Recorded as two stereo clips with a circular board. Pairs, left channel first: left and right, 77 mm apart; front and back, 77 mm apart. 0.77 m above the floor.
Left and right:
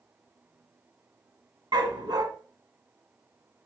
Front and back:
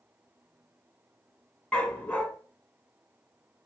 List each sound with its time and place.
1.7 s a dog barking: 75° right, 1.8 m